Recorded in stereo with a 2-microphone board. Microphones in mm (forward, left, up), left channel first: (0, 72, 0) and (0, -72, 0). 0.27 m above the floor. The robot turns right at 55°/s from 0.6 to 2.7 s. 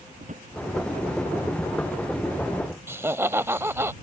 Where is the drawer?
60° right (ahead or behind).